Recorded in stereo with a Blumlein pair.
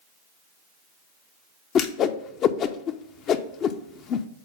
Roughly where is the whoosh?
Ahead left.